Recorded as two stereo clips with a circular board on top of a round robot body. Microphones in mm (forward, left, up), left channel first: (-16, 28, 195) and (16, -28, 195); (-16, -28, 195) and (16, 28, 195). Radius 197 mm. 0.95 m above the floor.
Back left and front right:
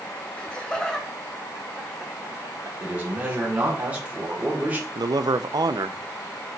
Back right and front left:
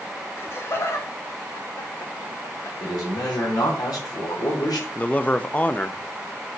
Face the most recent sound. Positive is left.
turn(degrees=-55)